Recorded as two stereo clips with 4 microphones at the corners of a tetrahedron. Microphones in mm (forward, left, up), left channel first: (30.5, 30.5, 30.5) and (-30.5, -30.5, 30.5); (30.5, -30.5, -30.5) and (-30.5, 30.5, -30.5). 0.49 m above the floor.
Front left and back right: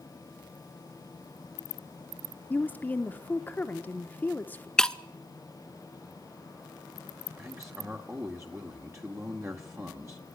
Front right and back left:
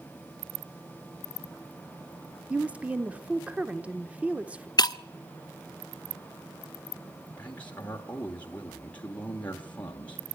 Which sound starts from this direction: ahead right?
Breaking glass, at 4.8 s.